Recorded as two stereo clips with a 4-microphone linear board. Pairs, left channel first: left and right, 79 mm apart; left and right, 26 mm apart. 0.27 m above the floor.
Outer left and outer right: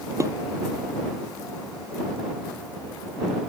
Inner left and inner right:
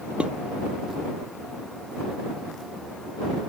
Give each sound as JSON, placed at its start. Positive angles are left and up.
{"t": 0.2, "sound": "dishes clattering", "side_deg": -40}